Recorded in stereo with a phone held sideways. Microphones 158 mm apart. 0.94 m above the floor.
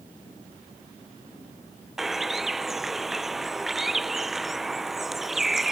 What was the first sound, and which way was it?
A bird, centre (ahead or behind).